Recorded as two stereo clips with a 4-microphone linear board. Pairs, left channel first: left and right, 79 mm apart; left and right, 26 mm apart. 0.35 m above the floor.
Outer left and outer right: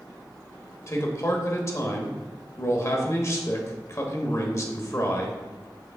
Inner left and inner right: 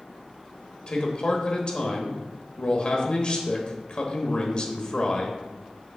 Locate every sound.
0.9 s a man speaking: 40° left (ahead or behind), 1.0 m